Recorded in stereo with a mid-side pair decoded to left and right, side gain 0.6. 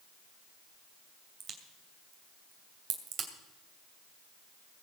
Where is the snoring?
No snoring in this recording.